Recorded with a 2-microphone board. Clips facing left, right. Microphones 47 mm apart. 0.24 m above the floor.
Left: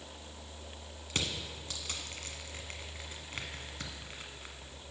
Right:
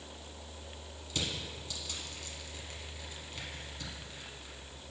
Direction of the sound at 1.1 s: 55° left (ahead or behind).